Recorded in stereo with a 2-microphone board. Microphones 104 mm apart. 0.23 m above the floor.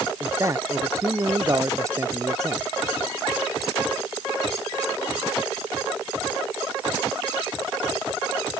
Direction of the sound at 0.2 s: 30° right (ahead or behind).